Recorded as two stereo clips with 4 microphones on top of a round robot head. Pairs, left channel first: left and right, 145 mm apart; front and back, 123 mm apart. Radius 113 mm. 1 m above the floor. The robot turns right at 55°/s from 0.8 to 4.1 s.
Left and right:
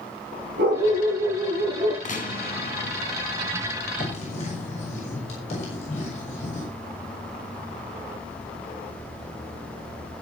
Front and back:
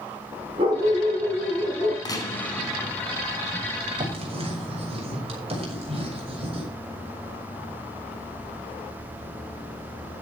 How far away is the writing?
About 6 m.